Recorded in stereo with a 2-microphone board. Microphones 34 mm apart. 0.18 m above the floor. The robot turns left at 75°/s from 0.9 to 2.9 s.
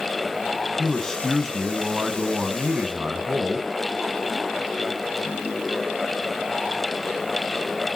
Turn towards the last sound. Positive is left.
turn(degrees=-115)